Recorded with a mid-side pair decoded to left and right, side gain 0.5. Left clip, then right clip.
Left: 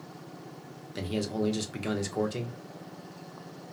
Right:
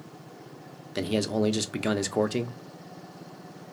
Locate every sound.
0.9 s a man speaking: 45° right, 0.6 m